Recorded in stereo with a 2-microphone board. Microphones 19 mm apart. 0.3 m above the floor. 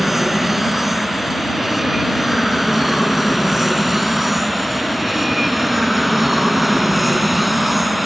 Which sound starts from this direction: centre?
An aircraft, at 0.0 s.